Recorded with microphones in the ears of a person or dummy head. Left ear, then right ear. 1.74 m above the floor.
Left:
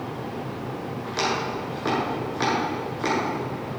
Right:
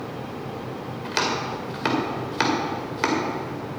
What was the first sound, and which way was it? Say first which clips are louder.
Chopping: right 1 dB; 50° right (ahead or behind).